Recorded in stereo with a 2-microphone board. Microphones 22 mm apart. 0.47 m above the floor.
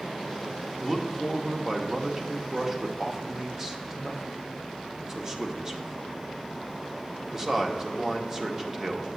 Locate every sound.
0.8 s a man speaking: 20° right (ahead or behind), 0.7 m